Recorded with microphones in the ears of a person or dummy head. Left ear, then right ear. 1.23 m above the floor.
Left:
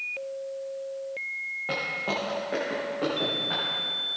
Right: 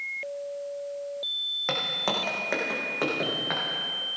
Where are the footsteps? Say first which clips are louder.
Right 1 dB; 70° right (ahead or behind), 3.5 m.